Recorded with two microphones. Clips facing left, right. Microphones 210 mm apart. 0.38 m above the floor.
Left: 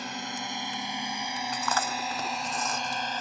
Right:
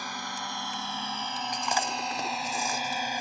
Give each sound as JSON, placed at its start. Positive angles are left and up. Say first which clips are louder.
{"t": 0.0, "sound": "a drone", "louder": "left 3 dB", "side_deg": 25}
{"t": 1.5, "sound": "chewing", "louder": "even", "side_deg": -15}